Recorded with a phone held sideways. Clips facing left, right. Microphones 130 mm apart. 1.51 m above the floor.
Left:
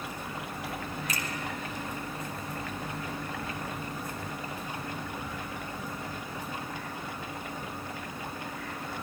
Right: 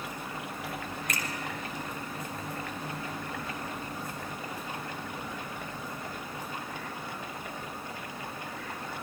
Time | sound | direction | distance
1.1 | a finger snap | 55° right (ahead or behind) | 4.5 m